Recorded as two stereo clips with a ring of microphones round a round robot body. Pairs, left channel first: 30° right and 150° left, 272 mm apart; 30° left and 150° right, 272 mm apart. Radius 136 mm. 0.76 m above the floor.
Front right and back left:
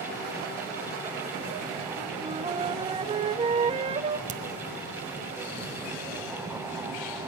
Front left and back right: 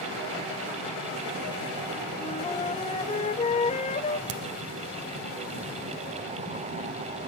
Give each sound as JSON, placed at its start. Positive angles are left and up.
{"t": 2.2, "sound": "a flute", "azimuth_deg": 90, "distance_m": 0.6}
{"t": 4.3, "sound": "a crack", "azimuth_deg": -145, "distance_m": 0.9}